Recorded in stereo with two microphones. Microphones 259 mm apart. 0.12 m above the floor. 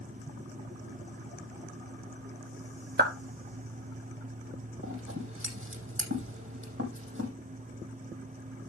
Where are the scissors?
55° right (ahead or behind), 5.5 m.